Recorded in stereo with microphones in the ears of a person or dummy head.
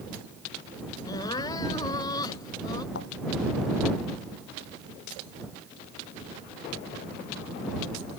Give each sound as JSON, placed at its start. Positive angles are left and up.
{"t": 1.1, "sound": "crying", "side_deg": 25}
{"t": 3.0, "sound": "a thud", "side_deg": 65}